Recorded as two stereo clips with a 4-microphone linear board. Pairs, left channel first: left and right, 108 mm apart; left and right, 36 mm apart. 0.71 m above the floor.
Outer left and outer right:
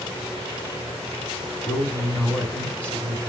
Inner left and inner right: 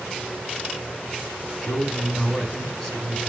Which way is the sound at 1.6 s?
10° left (ahead or behind).